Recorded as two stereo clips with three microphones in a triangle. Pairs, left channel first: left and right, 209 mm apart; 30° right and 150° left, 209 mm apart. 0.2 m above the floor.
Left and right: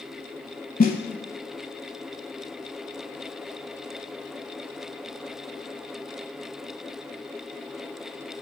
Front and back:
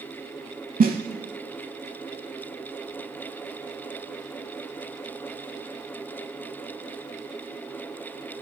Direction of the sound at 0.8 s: 120° left.